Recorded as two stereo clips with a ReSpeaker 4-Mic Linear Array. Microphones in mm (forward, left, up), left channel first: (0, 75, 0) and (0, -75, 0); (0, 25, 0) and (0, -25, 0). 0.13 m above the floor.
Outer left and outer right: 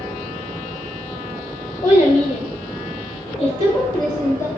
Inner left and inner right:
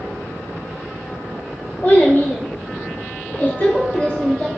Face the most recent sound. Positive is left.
turn(degrees=20)  # may be behind; listen again after turning